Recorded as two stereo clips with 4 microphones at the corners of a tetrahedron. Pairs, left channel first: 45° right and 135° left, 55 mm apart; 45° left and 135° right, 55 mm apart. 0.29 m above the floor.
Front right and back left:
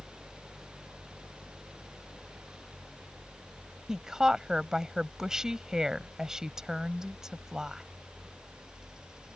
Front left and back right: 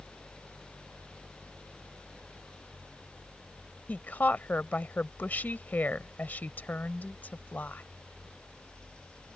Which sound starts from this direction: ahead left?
A woman speaking, at 3.9 s.